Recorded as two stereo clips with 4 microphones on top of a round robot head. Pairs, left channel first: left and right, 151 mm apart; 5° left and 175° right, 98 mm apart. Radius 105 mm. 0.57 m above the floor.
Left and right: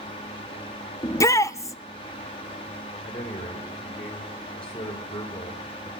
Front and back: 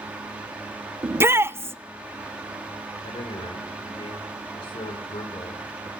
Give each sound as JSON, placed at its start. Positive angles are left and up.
{"t": 1.0, "sound": "a shout", "azimuth_deg": 140, "distance_m": 0.7}
{"t": 3.0, "sound": "a man speaking", "azimuth_deg": 35, "distance_m": 3.0}